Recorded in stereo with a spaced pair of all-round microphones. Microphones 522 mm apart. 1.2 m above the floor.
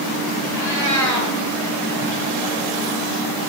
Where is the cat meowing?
5° left (ahead or behind), 9 m.